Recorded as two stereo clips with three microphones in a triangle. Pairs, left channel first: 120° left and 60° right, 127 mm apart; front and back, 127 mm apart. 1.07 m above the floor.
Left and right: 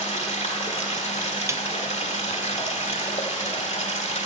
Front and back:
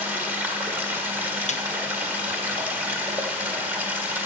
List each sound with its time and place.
0.0 s running water: 105° left, 1.3 m
1.5 s a snare drum: 5° left, 0.6 m